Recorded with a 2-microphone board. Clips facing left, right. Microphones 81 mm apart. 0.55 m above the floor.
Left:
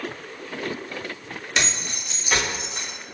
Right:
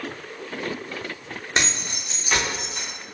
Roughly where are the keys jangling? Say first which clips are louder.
Right 1 dB; right.